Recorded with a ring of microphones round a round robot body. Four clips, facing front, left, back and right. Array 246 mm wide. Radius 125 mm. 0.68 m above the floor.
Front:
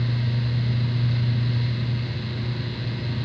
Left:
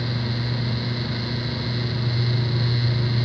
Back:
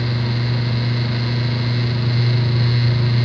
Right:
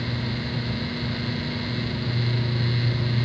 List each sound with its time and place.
Only background noise.